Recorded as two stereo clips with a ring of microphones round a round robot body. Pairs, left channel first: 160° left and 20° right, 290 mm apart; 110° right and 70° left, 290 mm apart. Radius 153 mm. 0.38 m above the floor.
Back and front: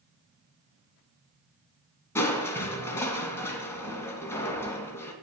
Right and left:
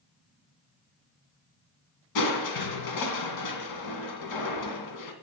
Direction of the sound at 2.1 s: 120° right.